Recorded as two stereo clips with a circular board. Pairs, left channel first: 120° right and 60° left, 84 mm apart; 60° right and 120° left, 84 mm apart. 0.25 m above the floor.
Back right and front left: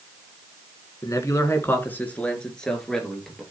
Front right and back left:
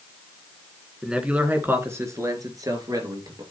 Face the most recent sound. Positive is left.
turn(degrees=150)